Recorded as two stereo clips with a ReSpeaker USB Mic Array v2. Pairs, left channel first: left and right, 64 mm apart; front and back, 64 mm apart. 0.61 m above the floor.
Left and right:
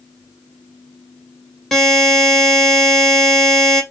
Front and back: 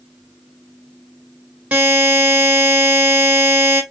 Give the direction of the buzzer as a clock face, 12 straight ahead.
7 o'clock.